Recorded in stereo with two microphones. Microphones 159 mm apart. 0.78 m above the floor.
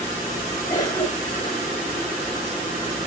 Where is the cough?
25° left (ahead or behind), 0.9 m.